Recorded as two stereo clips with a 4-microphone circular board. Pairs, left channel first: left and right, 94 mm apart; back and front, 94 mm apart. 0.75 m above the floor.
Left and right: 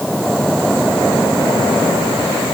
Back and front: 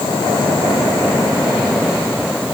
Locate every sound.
Only background noise.